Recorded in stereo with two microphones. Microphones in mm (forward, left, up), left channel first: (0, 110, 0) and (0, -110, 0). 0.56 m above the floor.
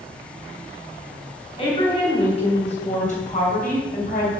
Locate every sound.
1.6 s a woman speaking: 25° left (ahead or behind), 4 m; by 4.3 s 45° left (ahead or behind), 3.5 m